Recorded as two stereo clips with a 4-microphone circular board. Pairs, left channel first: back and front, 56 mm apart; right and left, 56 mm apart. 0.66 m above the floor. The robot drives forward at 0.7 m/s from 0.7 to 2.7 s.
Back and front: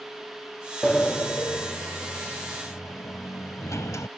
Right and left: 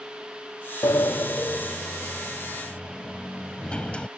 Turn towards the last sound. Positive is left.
turn(degrees=-160)